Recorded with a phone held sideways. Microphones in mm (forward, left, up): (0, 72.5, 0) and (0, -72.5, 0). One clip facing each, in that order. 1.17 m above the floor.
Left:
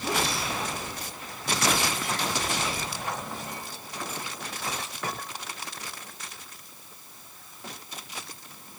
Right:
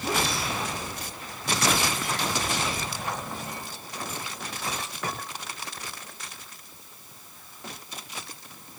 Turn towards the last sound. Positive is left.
No sound to turn to.